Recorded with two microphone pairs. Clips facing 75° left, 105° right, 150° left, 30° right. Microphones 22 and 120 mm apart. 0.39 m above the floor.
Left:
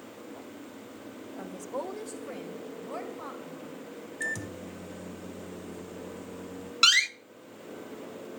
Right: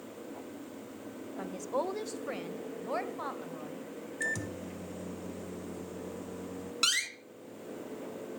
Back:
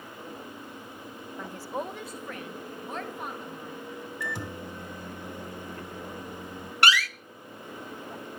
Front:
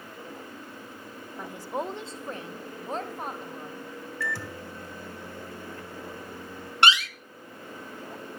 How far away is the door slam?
About 1.0 m.